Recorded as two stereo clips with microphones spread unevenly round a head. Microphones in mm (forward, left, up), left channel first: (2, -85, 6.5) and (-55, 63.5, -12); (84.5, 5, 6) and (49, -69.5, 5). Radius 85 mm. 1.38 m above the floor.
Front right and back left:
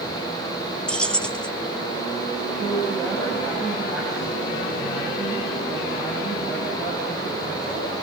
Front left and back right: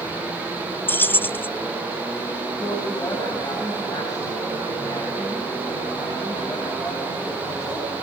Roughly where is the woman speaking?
Ahead.